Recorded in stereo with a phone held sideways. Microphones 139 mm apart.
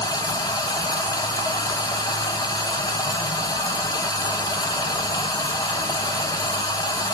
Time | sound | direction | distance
0.0 | running water | 25° left (ahead or behind) | 0.9 m